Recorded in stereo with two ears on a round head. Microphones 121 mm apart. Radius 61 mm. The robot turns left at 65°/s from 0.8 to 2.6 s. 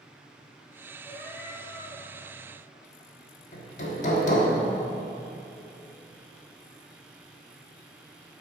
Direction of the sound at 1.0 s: 170° left.